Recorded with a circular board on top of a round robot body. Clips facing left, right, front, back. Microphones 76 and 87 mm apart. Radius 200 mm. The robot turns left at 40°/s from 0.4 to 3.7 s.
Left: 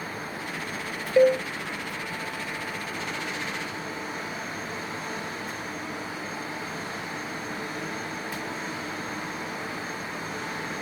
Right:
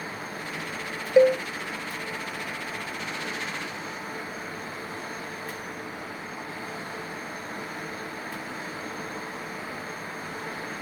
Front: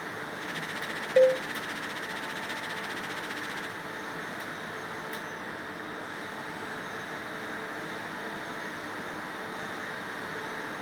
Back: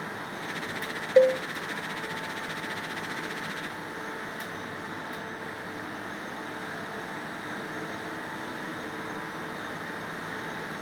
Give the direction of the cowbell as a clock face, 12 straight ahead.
4 o'clock.